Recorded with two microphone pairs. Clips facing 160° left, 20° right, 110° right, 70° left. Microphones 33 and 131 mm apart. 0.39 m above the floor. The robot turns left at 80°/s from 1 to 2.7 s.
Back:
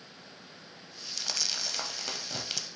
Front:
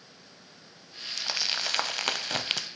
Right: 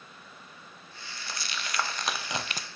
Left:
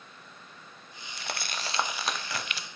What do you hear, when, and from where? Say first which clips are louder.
1.2 s crumpling: front 4 dB, left 3 dB; 55° left, 0.5 m; by 2.7 s 65° right, 0.5 m